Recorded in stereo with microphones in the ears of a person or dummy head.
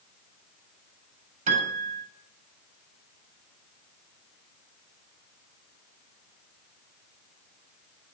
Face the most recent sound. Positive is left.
turn(degrees=-40)  # may be behind; listen again after turning